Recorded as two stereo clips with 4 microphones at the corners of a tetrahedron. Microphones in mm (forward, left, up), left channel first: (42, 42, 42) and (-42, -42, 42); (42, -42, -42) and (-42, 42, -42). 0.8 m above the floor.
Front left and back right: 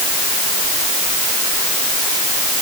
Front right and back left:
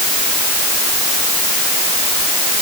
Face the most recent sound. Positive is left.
No sound to turn to.